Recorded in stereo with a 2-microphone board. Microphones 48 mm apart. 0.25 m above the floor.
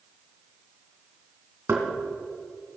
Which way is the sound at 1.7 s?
55° right (ahead or behind).